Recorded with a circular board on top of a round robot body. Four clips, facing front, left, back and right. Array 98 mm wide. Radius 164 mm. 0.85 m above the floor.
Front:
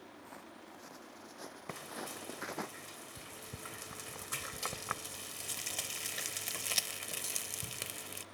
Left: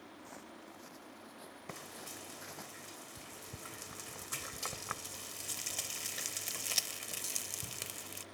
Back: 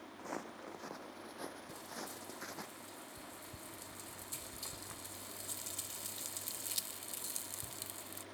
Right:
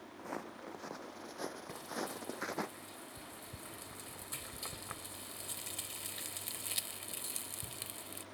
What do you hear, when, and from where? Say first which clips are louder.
0.2 s footsteps: right 11 dB, back 6 dB; 135° right; by 2.7 s 55° right
1.7 s frying: right 7 dB, front 3 dB; 20° left